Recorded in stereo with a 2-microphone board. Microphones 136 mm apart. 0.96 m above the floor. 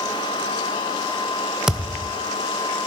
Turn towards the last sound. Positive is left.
turn(degrees=-5)  # may be behind; listen again after turning